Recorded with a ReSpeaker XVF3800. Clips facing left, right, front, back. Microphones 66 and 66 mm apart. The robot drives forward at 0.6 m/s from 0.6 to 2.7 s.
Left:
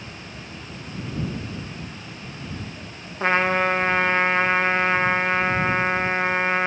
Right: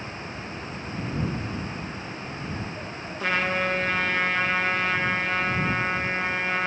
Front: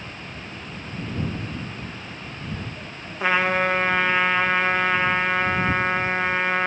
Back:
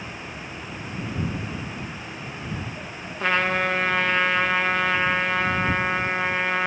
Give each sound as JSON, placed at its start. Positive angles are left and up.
{"t": 3.2, "sound": "a trumpet", "azimuth_deg": 70, "distance_m": 0.5}